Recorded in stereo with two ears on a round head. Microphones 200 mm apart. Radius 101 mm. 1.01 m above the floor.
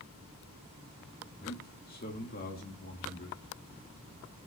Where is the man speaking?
45° left (ahead or behind), 2 m.